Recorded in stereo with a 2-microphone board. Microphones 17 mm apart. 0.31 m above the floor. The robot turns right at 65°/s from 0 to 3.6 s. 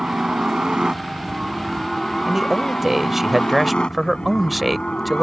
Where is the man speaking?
20° right (ahead or behind); by 5.2 s centre (ahead or behind).